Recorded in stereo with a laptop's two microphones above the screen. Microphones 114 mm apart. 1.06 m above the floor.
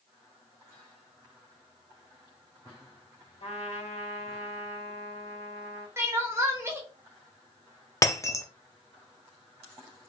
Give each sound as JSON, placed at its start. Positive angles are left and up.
{"t": 3.4, "sound": "a trumpet", "side_deg": 85, "distance_m": 1.8}
{"t": 6.0, "sound": "crying", "side_deg": -20, "distance_m": 0.8}
{"t": 8.0, "sound": "breaking glass", "side_deg": 25, "distance_m": 0.7}